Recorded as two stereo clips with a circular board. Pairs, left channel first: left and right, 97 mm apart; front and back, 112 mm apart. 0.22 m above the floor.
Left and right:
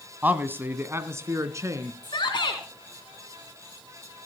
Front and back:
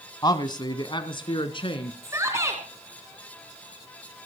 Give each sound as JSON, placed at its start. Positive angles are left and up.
{"t": 0.2, "sound": "a man speaking", "azimuth_deg": -25, "distance_m": 1.5}
{"t": 2.0, "sound": "a shout", "azimuth_deg": 120, "distance_m": 3.0}